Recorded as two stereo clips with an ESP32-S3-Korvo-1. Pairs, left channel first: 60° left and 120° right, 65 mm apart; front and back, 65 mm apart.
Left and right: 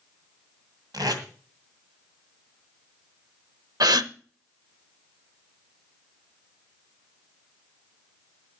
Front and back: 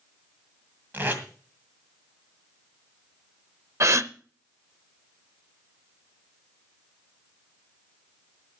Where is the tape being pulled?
120° right, 2.0 m.